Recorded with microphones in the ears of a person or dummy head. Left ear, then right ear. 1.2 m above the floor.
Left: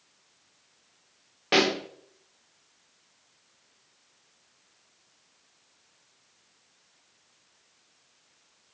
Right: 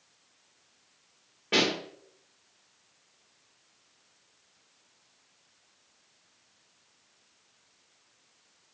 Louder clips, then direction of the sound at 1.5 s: Left 3 dB; 40° left (ahead or behind).